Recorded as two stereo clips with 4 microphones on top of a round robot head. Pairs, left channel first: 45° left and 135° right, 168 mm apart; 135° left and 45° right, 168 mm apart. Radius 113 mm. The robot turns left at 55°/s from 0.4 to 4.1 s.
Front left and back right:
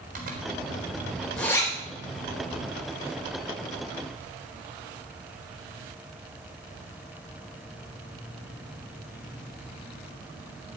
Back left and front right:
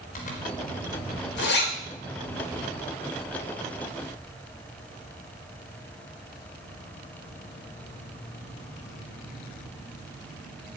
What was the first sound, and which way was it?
A zipper, 175° right.